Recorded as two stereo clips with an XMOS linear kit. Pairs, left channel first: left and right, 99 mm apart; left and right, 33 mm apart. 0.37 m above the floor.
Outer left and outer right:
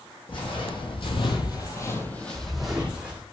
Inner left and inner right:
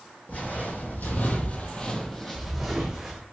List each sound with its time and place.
0.3 s footsteps: 60° left (ahead or behind), 1.0 m; by 3.2 s 15° right (ahead or behind), 1.1 m